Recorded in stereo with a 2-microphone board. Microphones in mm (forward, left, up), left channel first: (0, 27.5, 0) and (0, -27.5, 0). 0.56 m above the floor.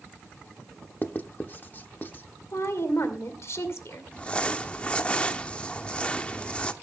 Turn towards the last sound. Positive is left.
turn(degrees=20)  # may be behind; listen again after turning